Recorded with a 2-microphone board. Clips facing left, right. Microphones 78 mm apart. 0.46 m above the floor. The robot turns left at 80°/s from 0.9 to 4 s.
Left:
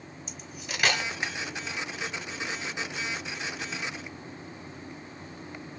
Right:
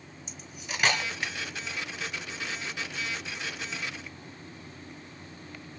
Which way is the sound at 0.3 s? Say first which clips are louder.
Even; centre (ahead or behind).